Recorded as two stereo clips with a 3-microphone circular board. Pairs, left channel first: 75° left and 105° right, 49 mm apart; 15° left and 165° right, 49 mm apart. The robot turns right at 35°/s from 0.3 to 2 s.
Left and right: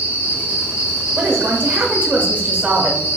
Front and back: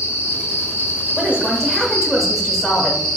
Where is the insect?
30° left, 0.9 m; by 3.2 s 90° left, 0.9 m.